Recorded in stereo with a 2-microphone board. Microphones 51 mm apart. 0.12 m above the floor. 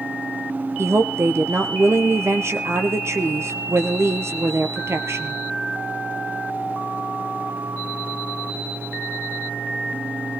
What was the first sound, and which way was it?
A woman speaking, 60° right (ahead or behind).